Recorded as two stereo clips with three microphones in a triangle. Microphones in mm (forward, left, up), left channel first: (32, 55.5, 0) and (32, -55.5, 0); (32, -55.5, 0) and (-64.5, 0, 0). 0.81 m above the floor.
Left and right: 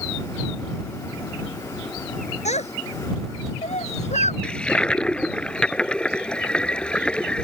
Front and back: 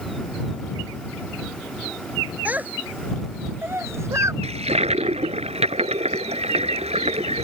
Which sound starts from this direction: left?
A child speaking, at 2.5 s.